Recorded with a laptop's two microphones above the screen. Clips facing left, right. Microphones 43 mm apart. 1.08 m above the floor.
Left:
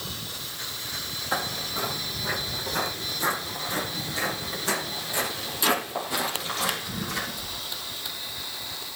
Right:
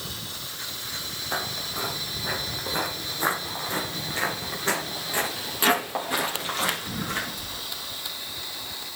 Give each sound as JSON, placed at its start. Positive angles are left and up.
{"t": 1.3, "sound": "footsteps", "side_deg": 10, "distance_m": 1.4}